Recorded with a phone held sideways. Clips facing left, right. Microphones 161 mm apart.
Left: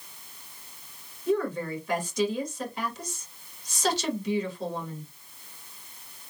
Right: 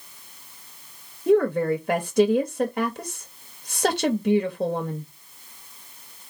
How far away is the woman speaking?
About 0.6 m.